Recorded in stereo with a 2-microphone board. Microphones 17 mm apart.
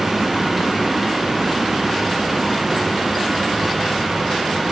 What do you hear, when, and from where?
Only background noise.